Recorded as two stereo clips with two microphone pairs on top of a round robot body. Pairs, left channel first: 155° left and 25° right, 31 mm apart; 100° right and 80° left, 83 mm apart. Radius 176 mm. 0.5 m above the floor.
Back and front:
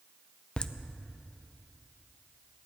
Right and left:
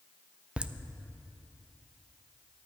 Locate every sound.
0.6 s laughter: 130° left, 0.7 m